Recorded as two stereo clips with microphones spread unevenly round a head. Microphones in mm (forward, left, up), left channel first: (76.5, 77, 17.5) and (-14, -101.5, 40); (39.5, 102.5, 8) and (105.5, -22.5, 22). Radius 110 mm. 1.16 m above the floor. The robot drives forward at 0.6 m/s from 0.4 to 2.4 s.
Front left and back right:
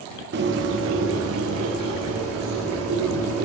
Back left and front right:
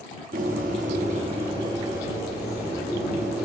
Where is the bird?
90° right, 1.0 m; by 3.5 s 145° right, 1.6 m.